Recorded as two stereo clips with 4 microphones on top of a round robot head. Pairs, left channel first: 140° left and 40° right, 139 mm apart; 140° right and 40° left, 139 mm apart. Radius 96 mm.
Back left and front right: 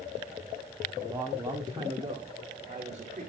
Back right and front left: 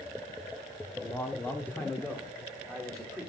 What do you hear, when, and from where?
1.0 s a man speaking: 95° right, 1.5 m; by 3.3 s 55° right, 2 m